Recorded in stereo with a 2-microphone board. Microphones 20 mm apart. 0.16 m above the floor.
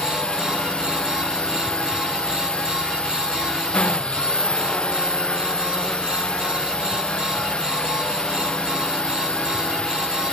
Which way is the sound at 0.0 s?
70° left (ahead or behind).